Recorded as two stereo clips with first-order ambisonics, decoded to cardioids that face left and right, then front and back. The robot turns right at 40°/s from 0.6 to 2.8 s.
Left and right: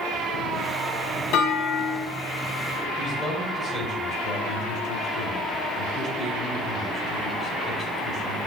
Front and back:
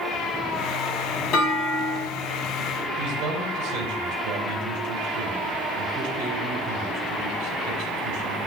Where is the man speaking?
160° left, 2.5 m.